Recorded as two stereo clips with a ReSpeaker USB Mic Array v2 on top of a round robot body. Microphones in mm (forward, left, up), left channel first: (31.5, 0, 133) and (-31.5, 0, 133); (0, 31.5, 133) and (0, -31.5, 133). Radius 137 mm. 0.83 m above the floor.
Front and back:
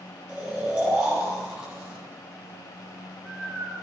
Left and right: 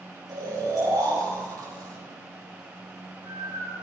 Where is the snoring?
100° right, 6 m.